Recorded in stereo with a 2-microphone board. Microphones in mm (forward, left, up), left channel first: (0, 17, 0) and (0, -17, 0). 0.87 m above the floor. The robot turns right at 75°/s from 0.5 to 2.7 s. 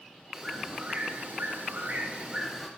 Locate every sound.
0.3 s a bird: 175° right, 3 m; by 2.7 s 10° right, 3 m